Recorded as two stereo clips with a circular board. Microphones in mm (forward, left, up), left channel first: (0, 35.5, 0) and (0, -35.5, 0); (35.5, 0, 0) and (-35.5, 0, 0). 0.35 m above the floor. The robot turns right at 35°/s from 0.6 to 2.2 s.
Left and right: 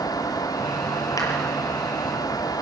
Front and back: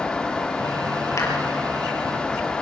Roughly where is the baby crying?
No baby crying in this recording.